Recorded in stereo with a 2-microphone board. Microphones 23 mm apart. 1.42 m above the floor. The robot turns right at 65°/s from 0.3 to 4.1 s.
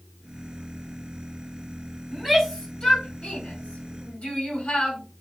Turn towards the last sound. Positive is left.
turn(degrees=60)  # may be behind; listen again after turning